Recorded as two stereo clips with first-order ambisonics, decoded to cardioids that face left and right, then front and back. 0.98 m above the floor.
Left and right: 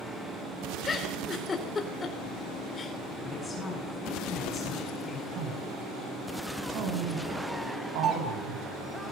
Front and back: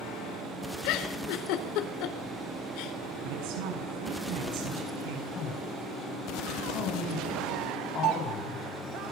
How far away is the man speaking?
About 6 m.